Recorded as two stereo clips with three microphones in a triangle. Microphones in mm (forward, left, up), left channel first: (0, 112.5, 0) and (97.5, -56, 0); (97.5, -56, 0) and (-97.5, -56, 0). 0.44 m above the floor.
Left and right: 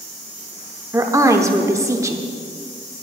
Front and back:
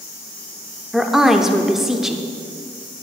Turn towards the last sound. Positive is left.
turn(degrees=-95)